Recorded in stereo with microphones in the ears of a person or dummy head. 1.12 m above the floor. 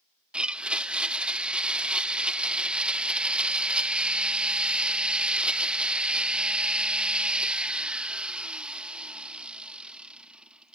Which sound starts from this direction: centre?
A blender, at 0.3 s.